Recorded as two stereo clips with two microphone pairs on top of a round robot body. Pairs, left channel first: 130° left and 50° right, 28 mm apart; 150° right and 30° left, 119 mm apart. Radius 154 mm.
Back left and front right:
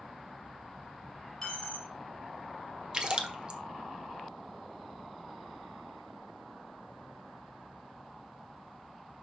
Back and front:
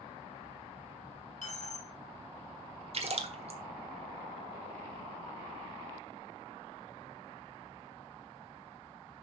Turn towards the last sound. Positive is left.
turn(degrees=10)